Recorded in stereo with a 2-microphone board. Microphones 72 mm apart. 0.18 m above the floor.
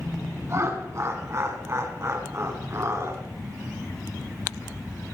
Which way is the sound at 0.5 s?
40° right (ahead or behind).